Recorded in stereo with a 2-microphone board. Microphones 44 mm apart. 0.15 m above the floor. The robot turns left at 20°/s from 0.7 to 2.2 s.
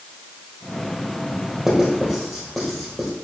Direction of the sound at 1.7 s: 10° right (ahead or behind).